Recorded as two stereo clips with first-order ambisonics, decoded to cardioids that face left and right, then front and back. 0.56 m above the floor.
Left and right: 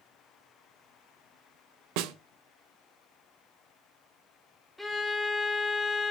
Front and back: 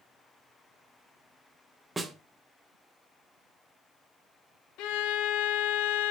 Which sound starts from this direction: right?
A snare drum, at 2.0 s.